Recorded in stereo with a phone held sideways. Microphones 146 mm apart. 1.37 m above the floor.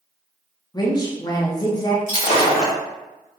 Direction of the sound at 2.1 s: 55° left (ahead or behind).